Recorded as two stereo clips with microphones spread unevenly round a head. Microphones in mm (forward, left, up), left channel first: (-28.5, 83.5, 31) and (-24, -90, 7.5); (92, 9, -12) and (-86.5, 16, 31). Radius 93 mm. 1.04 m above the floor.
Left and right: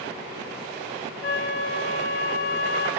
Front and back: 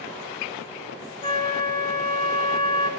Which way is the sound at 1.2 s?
60° left.